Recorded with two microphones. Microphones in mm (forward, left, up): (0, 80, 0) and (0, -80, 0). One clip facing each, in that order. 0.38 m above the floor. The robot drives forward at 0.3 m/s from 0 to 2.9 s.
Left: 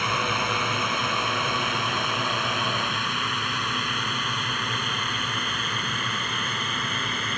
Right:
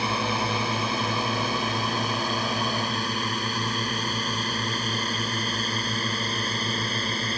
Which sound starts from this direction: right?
A drone, at 0.0 s.